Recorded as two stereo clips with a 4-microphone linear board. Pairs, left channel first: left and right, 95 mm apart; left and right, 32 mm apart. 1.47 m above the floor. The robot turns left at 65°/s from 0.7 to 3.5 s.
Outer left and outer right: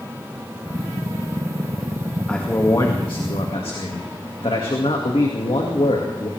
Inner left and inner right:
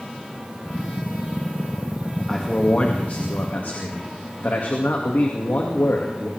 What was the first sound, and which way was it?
A man speaking, 170° left.